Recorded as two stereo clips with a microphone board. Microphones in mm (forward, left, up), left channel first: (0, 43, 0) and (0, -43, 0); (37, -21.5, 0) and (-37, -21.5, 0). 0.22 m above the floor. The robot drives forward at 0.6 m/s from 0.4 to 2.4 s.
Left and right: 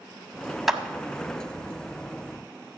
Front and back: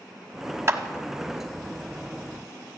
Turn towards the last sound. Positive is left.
turn(degrees=180)